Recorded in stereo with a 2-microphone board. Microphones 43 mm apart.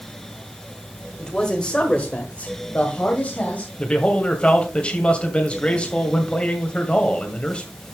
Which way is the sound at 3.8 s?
25° left (ahead or behind).